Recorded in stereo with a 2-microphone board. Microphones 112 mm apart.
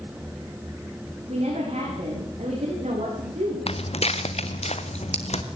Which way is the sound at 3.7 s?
60° left (ahead or behind).